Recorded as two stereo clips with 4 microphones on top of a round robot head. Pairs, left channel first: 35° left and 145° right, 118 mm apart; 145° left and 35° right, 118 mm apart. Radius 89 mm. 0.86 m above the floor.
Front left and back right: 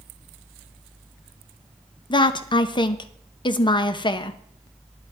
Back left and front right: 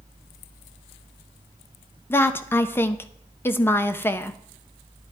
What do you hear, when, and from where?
2.1 s a woman speaking: 75° left, 0.7 m